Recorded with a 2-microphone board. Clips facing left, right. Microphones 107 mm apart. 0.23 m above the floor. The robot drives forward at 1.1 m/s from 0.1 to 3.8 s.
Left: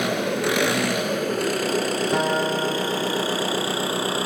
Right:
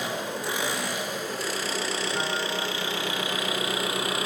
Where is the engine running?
75° left (ahead or behind), 2.5 m; by 4.3 s 30° left (ahead or behind), 4.5 m.